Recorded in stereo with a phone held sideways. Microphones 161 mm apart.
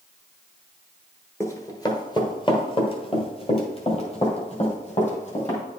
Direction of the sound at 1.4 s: 20° left (ahead or behind).